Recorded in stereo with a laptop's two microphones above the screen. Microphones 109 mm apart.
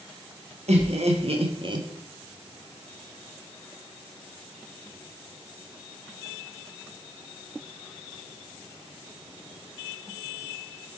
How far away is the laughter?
About 1.0 m.